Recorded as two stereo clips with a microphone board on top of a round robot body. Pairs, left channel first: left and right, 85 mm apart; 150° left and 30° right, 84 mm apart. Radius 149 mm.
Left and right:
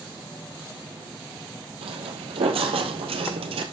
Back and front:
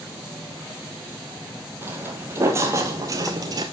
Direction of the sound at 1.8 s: 100° right.